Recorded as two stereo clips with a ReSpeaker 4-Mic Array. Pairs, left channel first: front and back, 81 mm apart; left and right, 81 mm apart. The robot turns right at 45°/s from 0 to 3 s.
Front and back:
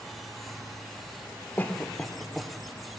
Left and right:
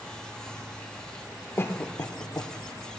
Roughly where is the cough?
Ahead left.